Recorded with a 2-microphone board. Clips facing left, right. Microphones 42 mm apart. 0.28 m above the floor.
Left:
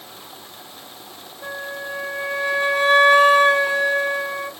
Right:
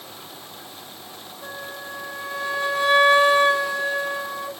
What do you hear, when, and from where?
1.4 s a flute: 30° left (ahead or behind), 1.7 m